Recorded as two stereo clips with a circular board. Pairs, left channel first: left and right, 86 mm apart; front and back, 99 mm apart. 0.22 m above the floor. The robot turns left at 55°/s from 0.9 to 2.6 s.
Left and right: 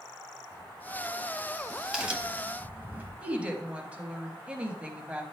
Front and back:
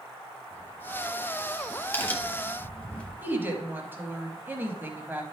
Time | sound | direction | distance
0.5 | a crack | 30° left | 1.1 m
3.2 | a woman speaking | 145° right | 1.2 m